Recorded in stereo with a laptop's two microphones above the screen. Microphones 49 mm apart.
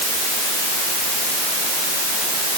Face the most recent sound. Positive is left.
No sound to turn to.